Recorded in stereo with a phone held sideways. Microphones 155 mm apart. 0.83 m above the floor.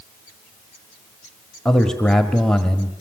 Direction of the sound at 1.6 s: 5° left (ahead or behind).